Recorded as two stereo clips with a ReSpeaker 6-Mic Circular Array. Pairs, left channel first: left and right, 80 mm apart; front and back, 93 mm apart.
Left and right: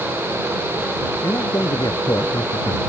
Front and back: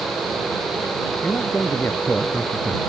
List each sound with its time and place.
1.2 s a man speaking: 70° left; by 2.8 s 85° left